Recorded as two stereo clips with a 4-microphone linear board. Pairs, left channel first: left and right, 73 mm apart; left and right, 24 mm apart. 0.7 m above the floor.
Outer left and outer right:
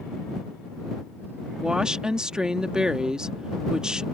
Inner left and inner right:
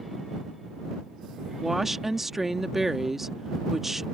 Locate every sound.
1.6 s a woman speaking: 10° right (ahead or behind)